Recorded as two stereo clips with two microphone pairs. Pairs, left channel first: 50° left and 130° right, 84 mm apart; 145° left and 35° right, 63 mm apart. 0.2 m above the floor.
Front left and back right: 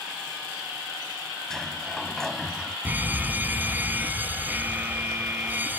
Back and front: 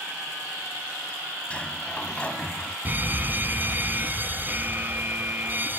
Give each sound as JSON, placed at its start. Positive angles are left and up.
{"t": 1.5, "sound": "a sliding door", "azimuth_deg": 125}
{"t": 2.9, "sound": "a fire alarm", "azimuth_deg": -75}